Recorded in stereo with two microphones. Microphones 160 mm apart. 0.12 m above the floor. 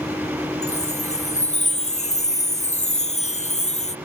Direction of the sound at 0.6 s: 45° left (ahead or behind).